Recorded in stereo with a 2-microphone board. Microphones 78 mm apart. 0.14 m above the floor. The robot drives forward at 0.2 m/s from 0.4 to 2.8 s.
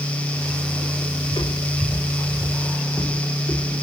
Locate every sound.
1.2 s footsteps: 80° left, 1.0 m; by 3.8 s 15° left (ahead or behind), 1.9 m